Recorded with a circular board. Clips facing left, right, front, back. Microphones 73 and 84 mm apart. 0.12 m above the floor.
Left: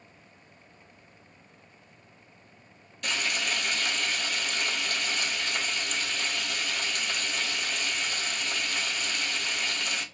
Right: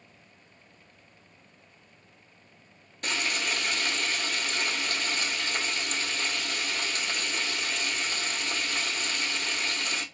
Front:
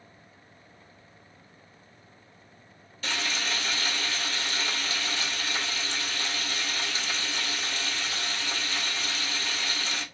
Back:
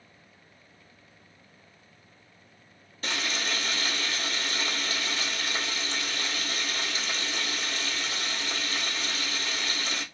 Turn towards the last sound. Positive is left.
turn(degrees=-135)